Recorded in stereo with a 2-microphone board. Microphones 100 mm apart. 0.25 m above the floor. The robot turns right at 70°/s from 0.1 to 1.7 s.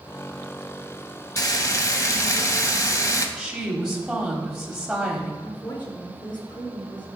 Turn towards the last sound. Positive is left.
turn(degrees=55)  # may be behind; listen again after turning